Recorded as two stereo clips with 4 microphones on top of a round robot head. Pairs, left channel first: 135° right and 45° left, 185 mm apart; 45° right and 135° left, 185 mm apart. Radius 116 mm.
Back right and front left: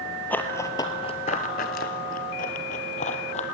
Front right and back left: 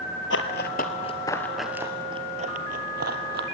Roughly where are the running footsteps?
Ahead right.